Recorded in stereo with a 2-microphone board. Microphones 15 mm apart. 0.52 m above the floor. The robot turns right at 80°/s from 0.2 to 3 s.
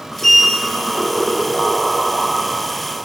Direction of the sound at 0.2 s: 25° left (ahead or behind).